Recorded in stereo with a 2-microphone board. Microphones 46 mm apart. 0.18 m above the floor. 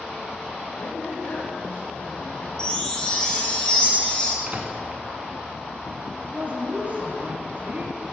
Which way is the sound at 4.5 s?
40° right (ahead or behind).